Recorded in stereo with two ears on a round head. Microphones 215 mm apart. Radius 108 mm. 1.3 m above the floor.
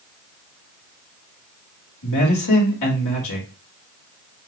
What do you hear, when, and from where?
2.0 s a man speaking: 85° left, 4.5 m